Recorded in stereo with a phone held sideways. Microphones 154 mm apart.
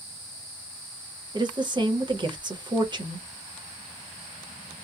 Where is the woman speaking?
30° right (ahead or behind), 1.0 m.